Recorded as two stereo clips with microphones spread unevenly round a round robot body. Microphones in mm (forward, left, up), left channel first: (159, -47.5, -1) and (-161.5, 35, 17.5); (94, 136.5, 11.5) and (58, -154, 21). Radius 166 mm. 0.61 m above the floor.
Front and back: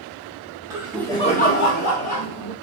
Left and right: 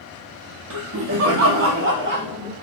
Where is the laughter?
115° right, 0.7 m; by 2.5 s 40° right, 1.2 m.